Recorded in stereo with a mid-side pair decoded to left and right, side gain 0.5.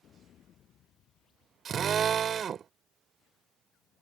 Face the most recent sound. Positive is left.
turn(degrees=-55)